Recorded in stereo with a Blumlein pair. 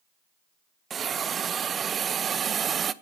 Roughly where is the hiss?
Ahead.